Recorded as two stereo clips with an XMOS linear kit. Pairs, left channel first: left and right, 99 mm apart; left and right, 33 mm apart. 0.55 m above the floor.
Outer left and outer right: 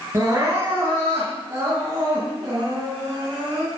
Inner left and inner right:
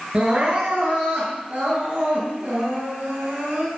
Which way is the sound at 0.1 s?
30° right (ahead or behind).